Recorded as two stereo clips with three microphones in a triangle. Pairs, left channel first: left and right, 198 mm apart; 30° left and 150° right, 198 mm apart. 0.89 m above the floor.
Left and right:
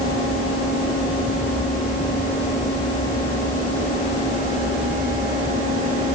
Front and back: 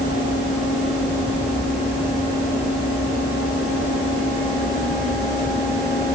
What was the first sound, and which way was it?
Only background noise.